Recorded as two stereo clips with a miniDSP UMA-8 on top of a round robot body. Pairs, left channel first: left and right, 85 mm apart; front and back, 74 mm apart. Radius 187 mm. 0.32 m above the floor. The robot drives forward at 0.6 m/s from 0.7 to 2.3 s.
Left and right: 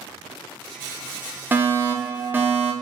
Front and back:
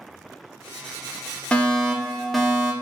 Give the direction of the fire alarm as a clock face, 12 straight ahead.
2 o'clock.